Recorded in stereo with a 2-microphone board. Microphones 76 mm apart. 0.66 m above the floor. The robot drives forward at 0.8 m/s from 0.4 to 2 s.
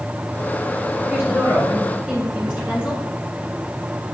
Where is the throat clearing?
I don't hear throat clearing.